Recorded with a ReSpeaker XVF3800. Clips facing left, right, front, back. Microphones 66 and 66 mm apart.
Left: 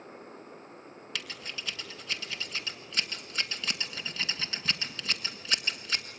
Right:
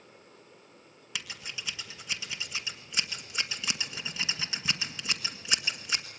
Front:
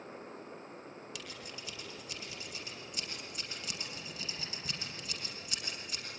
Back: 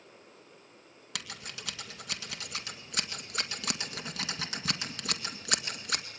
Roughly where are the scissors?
Behind.